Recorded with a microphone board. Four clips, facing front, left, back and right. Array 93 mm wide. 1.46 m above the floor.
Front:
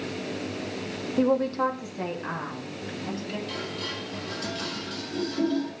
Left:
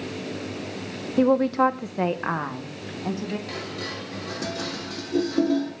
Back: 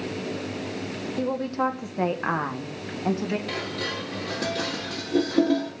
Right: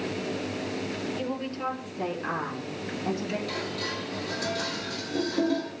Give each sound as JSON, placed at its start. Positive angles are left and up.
{"t": 1.2, "sound": "a woman speaking", "azimuth_deg": 75, "distance_m": 1.3}
{"t": 3.5, "sound": "dishes clattering", "azimuth_deg": 155, "distance_m": 3.5}